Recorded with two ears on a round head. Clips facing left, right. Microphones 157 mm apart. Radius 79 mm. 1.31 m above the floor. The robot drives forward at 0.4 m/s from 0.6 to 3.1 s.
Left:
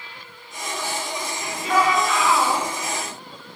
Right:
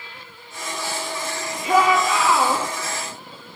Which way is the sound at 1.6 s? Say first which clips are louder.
Right 2 dB; 15° right (ahead or behind).